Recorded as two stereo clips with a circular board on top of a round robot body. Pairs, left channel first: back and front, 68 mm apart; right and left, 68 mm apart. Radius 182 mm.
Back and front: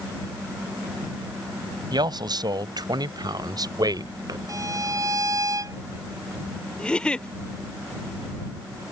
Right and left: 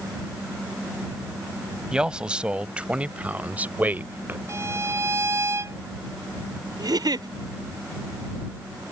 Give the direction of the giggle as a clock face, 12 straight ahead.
9 o'clock.